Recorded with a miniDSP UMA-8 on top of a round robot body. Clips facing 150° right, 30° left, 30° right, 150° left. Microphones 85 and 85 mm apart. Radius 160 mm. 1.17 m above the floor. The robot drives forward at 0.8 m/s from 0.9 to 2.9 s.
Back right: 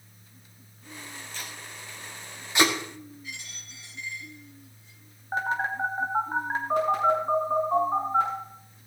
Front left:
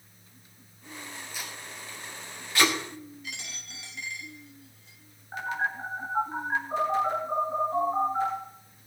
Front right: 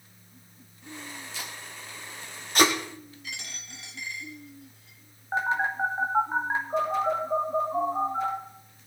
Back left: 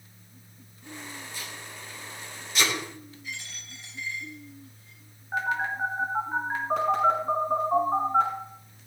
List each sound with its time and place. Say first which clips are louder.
1.3 s tape being pulled: even, even; 50° right, 2 m; by 2.7 s 80° right, 1.7 m
3.2 s a dropped coin: front left 1 dB, back left 1 dB; 5° left, 1.9 m
5.3 s a phone buzzing: back right 3 dB, front right 2 dB; 95° right, 3 m
6.7 s a phone buzzing: back right 4 dB, back left 4 dB; 170° left, 7 m